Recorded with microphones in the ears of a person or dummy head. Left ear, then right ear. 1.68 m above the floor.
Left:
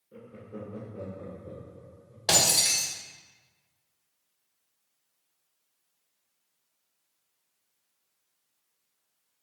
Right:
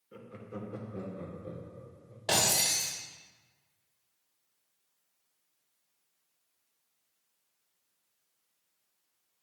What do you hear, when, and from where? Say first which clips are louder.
0.1 s laughter: left 1 dB; 55° right (ahead or behind), 1.4 m; by 2.2 s 60° right (ahead or behind), 1.4 m
2.3 s breaking glass: left 4 dB; 25° left (ahead or behind), 2.5 m